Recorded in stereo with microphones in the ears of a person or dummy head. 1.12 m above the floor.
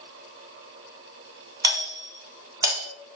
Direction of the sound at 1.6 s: 20° right (ahead or behind).